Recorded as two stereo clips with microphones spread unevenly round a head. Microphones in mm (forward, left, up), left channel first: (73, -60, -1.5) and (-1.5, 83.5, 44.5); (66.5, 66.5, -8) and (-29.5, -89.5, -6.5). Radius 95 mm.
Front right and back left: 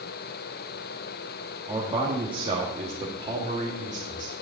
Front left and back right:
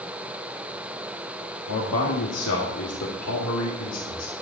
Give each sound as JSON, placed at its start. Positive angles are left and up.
{"t": 1.7, "sound": "a man speaking", "azimuth_deg": 50, "distance_m": 2.0}